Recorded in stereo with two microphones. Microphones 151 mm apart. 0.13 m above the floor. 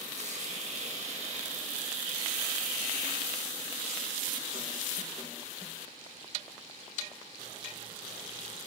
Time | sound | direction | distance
0.2 | a hiss | 55° right (ahead or behind) | 1.8 m